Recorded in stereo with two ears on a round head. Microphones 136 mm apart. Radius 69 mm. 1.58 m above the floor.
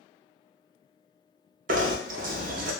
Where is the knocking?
55° right (ahead or behind), 0.7 m.